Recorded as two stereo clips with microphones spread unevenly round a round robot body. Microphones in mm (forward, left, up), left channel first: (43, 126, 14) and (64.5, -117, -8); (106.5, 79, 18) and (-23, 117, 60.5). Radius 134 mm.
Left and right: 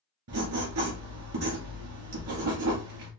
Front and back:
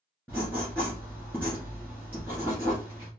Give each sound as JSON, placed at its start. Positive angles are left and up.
{"t": 0.3, "sound": "writing", "azimuth_deg": -110, "distance_m": 1.7}